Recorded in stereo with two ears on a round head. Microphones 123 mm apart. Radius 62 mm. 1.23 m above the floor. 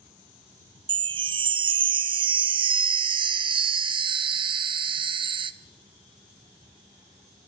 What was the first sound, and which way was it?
A chime, 35° right (ahead or behind).